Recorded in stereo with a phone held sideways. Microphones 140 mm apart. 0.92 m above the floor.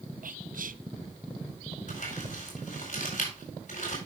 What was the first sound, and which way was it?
Whispering, 70° right (ahead or behind).